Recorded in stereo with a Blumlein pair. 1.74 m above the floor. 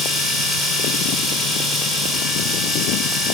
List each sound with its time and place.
0.0 s a machine running: straight ahead, 2 m